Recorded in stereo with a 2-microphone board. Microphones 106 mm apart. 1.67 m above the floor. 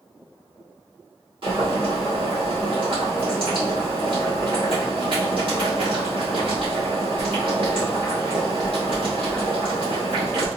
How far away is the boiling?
About 1.9 m.